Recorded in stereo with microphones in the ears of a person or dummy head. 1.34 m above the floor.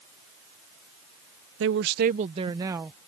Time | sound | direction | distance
1.6 | a woman speaking | 70° right (ahead or behind) | ?